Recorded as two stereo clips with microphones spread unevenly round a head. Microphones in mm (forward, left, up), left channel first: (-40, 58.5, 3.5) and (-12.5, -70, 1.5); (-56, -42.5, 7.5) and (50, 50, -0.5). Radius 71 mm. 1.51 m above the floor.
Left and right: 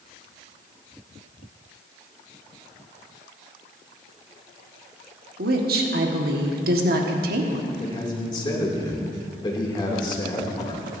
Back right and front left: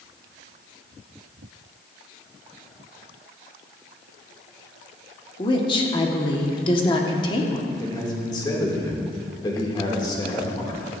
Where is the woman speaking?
80° right, 1.5 m.